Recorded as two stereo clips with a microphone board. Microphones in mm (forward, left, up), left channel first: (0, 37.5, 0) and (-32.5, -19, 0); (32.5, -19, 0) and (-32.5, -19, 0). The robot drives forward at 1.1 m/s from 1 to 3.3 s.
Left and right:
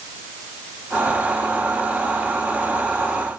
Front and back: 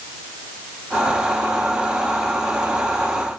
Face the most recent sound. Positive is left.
No sound to turn to.